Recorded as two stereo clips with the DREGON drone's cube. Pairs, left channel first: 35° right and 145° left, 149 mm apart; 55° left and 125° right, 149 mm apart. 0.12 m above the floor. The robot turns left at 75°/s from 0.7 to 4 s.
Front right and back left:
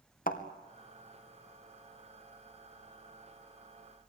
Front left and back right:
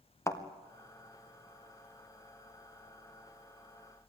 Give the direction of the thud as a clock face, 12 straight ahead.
12 o'clock.